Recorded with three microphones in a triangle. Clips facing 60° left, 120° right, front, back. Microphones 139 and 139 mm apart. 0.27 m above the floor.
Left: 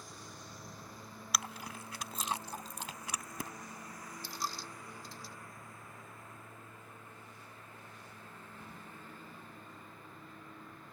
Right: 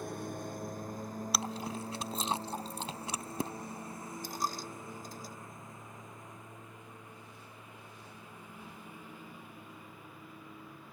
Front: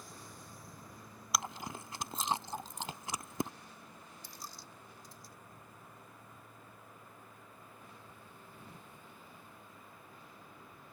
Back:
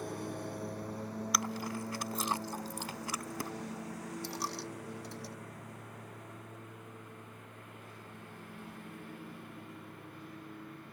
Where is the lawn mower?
155° right; by 10.9 s 160° left.